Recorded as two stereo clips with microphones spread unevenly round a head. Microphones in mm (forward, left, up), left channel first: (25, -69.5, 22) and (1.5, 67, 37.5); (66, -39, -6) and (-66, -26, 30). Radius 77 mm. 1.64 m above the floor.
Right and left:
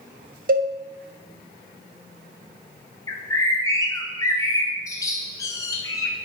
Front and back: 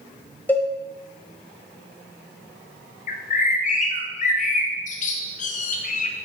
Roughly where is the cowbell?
Left.